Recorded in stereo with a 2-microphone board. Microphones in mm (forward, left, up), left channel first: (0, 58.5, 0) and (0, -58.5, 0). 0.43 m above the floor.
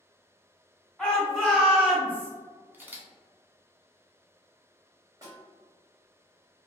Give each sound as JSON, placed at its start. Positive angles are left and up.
{"t": 1.0, "sound": "a shout", "side_deg": 0, "distance_m": 1.0}
{"t": 2.7, "sound": "a camera shutter", "side_deg": -15, "distance_m": 0.6}
{"t": 5.2, "sound": "a snare drum", "side_deg": -30, "distance_m": 1.1}